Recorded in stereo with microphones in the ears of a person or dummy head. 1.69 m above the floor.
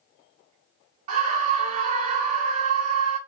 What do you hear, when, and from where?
1.1 s a scream: 40° right (ahead or behind), 1.2 m